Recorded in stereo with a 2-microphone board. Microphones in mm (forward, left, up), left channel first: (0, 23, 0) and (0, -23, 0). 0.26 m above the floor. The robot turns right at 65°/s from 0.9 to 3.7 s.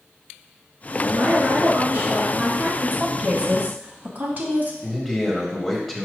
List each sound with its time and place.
1.0 s a woman speaking: 130° right, 3 m; by 2.7 s 20° right, 3 m
2.8 s a woman speaking: 170° right, 1.4 m; by 4.7 s 110° right, 1.4 m
4.8 s a man speaking: 5° left (ahead or behind), 1.4 m